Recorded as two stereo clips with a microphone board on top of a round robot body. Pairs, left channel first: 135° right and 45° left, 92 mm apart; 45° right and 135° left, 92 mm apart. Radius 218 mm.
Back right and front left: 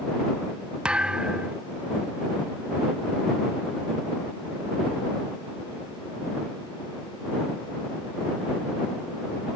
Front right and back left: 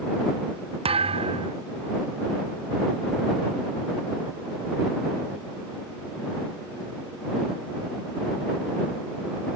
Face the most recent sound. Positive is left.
turn(degrees=125)